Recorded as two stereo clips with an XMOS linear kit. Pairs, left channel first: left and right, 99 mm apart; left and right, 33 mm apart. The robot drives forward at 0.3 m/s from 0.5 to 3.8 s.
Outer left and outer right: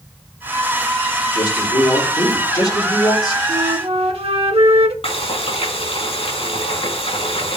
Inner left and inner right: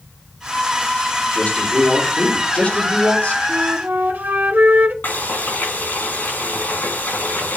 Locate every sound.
1.3 s a man speaking: 55° left (ahead or behind), 3 m; by 3.4 s 45° left (ahead or behind), 3.5 m
3.5 s a flute: 85° right, 1.0 m
5.0 s frying: 75° left (ahead or behind), 4 m